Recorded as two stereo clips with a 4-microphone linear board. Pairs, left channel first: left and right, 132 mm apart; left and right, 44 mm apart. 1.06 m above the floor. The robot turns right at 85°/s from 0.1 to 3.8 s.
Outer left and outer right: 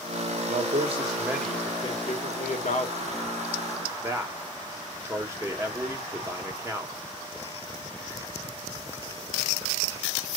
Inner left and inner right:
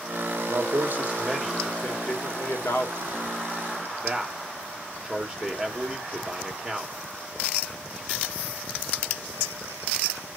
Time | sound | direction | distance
0.5 | a man speaking | 80° right | 2 m